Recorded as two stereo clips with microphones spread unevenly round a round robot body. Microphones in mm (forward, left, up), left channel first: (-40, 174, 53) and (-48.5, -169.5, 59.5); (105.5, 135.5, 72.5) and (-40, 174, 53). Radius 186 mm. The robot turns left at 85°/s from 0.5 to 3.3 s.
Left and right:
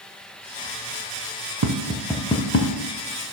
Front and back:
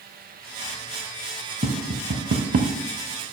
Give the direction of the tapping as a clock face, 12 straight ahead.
5 o'clock.